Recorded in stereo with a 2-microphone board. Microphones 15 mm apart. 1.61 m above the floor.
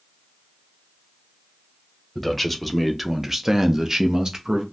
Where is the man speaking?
5° left (ahead or behind), 1.0 m; by 4.6 s 50° right (ahead or behind), 0.8 m.